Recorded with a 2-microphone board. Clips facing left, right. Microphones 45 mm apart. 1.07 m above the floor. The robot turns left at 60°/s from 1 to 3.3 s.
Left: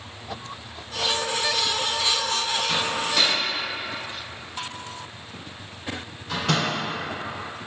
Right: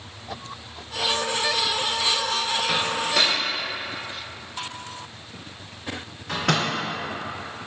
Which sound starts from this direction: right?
A microwave, at 2.7 s.